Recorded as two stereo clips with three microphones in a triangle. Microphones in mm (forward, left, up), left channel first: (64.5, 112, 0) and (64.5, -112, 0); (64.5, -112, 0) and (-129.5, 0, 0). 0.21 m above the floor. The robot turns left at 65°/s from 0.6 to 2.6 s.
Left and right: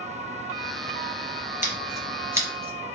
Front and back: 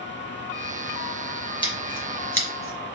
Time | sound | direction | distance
1.6 | scissors | 35° left | 3 m